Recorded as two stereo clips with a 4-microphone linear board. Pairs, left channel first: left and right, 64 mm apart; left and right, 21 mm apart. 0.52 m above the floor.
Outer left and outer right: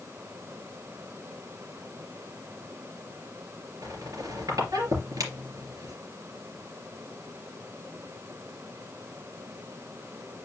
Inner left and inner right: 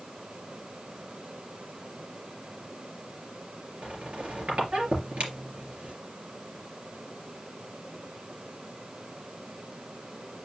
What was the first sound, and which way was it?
A squeak, 70° right (ahead or behind).